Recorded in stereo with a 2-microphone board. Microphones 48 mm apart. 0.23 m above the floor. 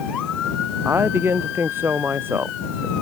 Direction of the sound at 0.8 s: 55° right (ahead or behind).